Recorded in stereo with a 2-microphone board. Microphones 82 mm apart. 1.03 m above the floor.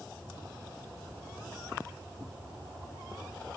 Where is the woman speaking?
No woman speaking in this recording.